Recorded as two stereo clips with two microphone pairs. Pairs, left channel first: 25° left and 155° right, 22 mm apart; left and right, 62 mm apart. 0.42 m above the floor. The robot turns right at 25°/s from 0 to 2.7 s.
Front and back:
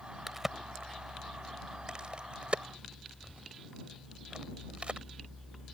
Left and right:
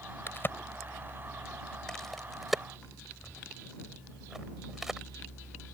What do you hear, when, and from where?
0.3 s a crack: 130° left; by 5.0 s 170° right